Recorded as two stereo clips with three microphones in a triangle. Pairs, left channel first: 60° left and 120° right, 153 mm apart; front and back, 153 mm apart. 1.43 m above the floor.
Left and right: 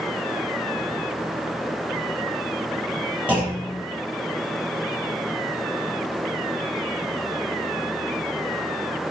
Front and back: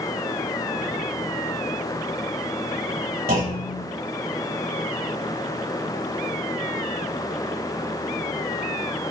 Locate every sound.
3.3 s a clunk: 160° left, 3.5 m